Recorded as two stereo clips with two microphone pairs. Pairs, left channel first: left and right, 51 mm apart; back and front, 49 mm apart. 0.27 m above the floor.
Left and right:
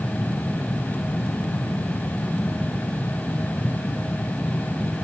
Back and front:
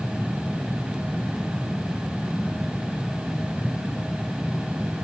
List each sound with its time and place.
Only background noise.